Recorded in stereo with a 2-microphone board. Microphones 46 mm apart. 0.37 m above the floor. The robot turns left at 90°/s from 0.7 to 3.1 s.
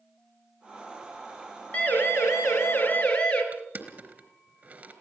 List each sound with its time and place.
1.7 s a siren: 30° left (ahead or behind), 4 m; by 3.4 s 20° left (ahead or behind), 5.5 m
3.5 s crushing: 40° right (ahead or behind), 3.5 m